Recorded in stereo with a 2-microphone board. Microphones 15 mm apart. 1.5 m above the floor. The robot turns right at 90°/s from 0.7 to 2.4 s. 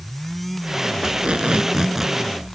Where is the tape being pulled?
110° right; by 2.2 s 5° right.